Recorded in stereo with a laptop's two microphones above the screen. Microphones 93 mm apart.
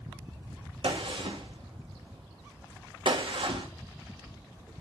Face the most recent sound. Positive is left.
turn(degrees=-70)  # may be behind; listen again after turning